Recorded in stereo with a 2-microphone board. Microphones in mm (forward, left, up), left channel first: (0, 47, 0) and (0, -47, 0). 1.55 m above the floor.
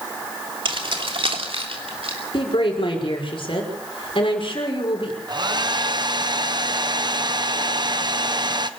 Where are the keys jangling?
60° right (ahead or behind), 2.5 m; by 2.2 s 85° right, 4 m.